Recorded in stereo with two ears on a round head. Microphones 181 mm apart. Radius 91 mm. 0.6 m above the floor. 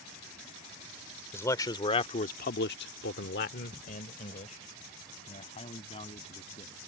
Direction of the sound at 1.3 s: 15° left (ahead or behind).